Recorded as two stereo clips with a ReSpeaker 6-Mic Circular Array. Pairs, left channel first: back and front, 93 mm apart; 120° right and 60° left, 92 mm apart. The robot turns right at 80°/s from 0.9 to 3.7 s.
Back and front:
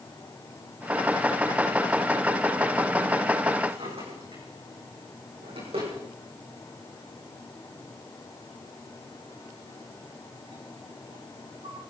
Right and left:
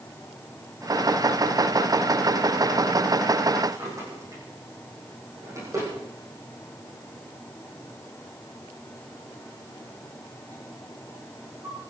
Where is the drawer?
5° left, 8.5 m.